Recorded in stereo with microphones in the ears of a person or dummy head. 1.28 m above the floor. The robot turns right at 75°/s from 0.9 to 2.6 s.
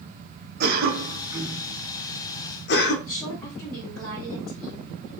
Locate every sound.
0.6 s a cough: 50° right (ahead or behind), 1.2 m; by 2.9 s 60° left (ahead or behind), 1.2 m
3.0 s a woman speaking: 5° left (ahead or behind), 2.5 m